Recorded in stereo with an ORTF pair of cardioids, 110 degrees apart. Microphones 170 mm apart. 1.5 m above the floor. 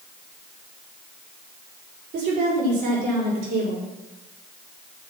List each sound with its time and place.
2.1 s a woman speaking: 70° right, 5.5 m; by 3.9 s 75° right, 6.5 m